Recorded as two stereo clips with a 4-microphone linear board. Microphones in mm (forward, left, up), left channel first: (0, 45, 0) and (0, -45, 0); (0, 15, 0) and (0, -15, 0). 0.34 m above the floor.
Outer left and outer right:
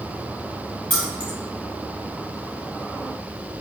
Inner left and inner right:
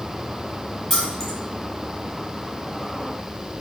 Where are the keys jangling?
15° left (ahead or behind), 1.2 m.